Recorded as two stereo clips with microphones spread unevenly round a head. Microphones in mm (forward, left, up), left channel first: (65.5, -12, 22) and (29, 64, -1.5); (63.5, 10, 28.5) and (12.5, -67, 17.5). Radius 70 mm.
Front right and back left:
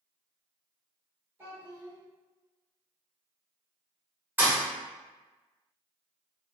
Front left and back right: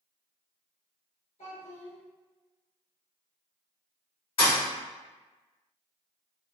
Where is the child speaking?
45° left, 2.0 m.